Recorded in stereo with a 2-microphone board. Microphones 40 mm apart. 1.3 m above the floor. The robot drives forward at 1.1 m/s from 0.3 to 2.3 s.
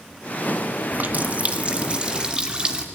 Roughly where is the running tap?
Right.